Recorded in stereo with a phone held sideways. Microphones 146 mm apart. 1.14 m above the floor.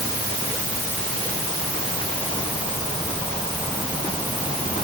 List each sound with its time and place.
Only background noise.